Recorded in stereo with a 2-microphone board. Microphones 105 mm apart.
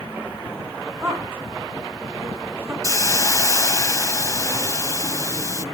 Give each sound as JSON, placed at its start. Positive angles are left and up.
{"t": 1.0, "sound": "a woman speaking", "side_deg": -20, "distance_m": 1.8}
{"t": 2.8, "sound": "a hiss", "side_deg": 30, "distance_m": 0.6}